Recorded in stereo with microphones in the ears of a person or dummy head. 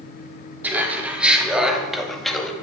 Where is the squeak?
No squeak in this recording.